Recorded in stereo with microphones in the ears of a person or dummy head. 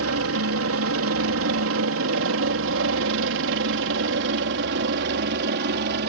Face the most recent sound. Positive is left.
turn(degrees=-55)  # may be behind; listen again after turning